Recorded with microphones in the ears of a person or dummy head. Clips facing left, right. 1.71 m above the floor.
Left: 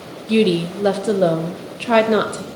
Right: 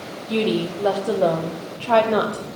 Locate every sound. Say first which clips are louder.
0.3 s a woman speaking: left 5 dB; 30° left (ahead or behind), 1.0 m